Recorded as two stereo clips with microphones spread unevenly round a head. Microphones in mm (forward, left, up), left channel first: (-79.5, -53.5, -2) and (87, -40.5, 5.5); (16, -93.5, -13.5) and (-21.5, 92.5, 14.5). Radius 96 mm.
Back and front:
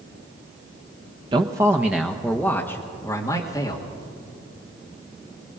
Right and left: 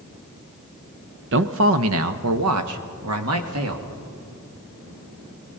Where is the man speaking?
70° left, 0.9 m; by 3.9 s 115° left, 2 m.